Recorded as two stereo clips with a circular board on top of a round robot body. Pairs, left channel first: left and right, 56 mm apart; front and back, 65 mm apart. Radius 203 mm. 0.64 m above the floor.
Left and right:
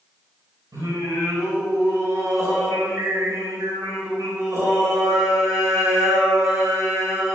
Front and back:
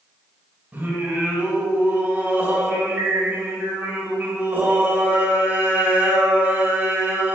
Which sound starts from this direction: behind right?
Singing, at 0.7 s.